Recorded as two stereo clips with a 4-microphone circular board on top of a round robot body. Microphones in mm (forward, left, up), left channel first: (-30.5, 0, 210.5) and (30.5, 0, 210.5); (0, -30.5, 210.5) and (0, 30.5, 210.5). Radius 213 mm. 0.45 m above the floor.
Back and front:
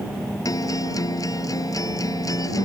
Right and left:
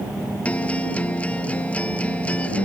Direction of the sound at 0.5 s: 160° right.